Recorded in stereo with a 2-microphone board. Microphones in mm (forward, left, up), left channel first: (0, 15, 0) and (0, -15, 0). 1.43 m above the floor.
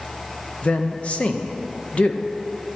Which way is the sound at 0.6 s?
45° left (ahead or behind).